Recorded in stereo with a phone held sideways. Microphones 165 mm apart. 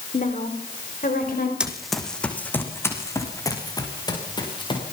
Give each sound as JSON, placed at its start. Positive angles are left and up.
{"t": 0.1, "sound": "a woman speaking", "side_deg": 50, "distance_m": 3.5}
{"t": 1.6, "sound": "running footsteps", "side_deg": -5, "distance_m": 3.0}